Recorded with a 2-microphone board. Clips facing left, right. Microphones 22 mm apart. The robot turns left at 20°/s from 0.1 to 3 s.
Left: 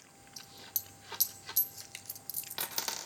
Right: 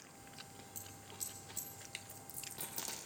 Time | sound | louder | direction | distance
0.4 | a dropped coin | left 10 dB | 70° left (ahead or behind) | 0.6 m